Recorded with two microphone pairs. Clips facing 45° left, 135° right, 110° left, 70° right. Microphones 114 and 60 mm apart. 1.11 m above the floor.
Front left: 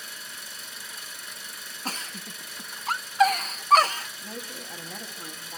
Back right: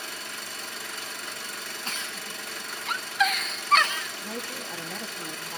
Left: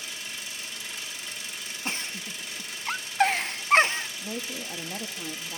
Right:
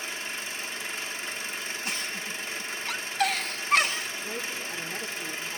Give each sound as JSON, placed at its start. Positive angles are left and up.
{"t": 0.0, "sound": "an engine running", "azimuth_deg": -125, "distance_m": 1.1}
{"t": 1.9, "sound": "a giggle", "azimuth_deg": 75, "distance_m": 0.8}
{"t": 4.2, "sound": "a woman speaking", "azimuth_deg": 145, "distance_m": 2.0}